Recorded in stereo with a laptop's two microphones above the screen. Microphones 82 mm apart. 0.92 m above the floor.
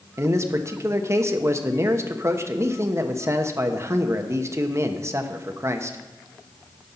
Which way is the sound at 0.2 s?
35° right (ahead or behind).